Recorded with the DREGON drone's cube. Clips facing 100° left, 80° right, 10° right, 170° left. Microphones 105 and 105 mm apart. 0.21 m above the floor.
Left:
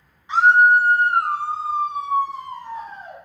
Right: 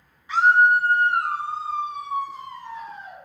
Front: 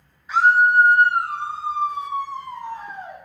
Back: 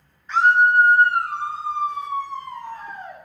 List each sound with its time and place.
0.3 s a scream: 60° left, 1.5 m; by 3.2 s 65° left, 3 m